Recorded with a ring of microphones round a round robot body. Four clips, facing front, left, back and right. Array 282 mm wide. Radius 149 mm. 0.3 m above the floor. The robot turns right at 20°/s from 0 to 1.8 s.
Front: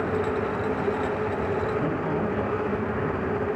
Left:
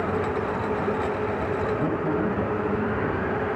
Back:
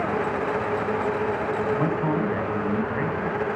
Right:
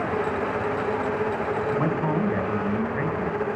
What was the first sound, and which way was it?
A man speaking, 130° right.